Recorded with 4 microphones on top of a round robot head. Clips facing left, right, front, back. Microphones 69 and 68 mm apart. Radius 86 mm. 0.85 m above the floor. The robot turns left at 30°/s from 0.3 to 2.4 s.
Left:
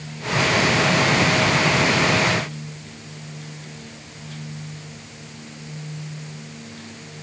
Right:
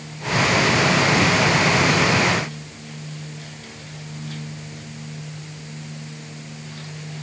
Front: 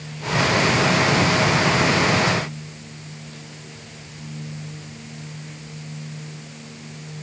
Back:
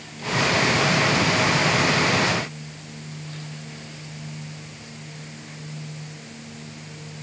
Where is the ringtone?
I don't hear a ringtone.